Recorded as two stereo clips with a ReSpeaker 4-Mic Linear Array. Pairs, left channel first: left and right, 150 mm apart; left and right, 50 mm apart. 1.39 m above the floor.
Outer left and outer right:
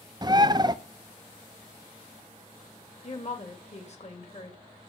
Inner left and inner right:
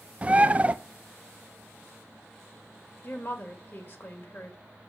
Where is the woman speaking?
50° left (ahead or behind), 2.5 m.